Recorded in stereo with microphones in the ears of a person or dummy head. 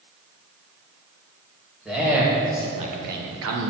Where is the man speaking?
Centre (ahead or behind), 1.8 m; by 3.7 s 75° right (ahead or behind), 1.1 m.